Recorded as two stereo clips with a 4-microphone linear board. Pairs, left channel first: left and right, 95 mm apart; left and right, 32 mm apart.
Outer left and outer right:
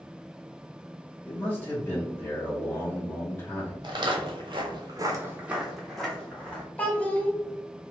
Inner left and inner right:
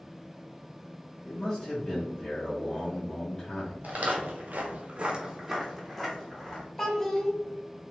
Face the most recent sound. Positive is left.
turn(degrees=15)  # may be behind; listen again after turning